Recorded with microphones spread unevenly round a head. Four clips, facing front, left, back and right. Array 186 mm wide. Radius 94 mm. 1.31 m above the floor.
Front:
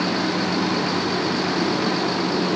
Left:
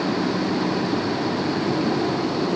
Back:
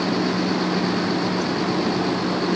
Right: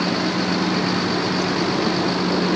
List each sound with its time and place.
Only background noise.